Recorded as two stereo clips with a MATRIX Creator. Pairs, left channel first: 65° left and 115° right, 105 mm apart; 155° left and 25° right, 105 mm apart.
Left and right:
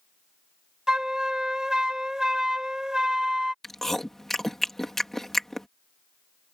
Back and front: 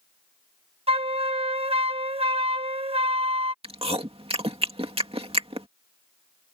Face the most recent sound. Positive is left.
turn(degrees=-20)